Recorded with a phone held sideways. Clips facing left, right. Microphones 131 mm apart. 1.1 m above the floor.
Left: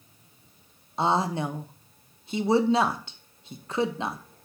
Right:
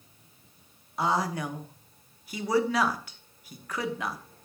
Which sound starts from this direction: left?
A woman speaking, at 1.0 s.